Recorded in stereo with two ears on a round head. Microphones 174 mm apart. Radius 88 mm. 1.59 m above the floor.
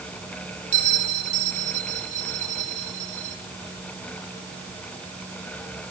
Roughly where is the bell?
Right.